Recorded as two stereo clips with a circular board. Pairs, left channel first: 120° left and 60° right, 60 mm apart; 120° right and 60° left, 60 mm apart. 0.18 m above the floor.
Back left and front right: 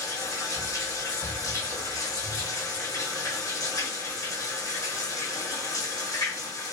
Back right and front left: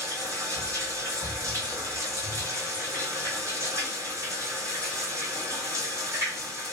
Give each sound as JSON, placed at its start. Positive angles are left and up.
{"t": 0.0, "sound": "running water", "azimuth_deg": 95, "distance_m": 1.6}